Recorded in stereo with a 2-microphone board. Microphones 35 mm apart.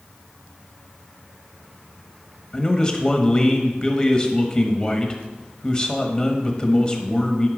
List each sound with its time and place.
2.5 s a man speaking: 25° left (ahead or behind), 1.3 m